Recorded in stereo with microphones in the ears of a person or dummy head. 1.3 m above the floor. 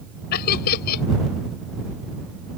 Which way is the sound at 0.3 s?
55° left (ahead or behind).